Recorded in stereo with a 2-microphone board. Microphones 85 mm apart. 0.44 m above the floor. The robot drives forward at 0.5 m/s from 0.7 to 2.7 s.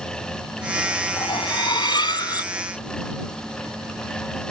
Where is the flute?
I don't hear a flute.